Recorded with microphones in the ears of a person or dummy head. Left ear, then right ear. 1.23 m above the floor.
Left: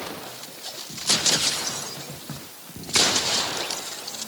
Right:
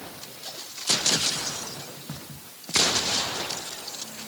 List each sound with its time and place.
Only background noise.